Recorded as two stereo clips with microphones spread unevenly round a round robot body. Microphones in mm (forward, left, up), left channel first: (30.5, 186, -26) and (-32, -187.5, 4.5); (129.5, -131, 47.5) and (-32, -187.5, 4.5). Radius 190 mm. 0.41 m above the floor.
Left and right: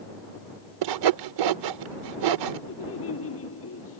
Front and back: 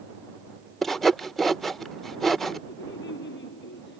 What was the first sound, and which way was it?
Sawing, 80° right.